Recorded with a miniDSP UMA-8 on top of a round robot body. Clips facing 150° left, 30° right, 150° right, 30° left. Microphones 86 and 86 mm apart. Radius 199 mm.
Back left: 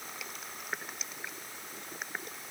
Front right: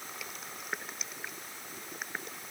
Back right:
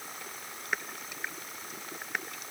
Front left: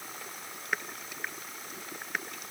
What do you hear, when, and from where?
Only background noise.